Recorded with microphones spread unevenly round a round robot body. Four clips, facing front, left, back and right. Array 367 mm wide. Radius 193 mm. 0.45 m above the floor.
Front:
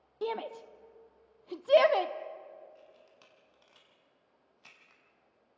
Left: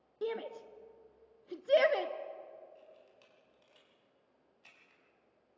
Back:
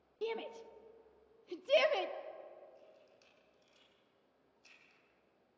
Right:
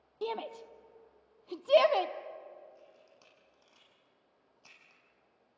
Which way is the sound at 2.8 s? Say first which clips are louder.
Even, front 4 dB; 30° right.